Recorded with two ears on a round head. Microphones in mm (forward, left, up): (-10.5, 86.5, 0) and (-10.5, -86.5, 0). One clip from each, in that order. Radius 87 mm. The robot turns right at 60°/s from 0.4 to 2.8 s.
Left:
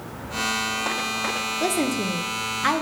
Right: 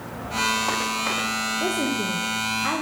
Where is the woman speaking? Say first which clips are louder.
Left 1 dB; 50° left, 0.8 m; by 2.8 s 120° left, 0.8 m.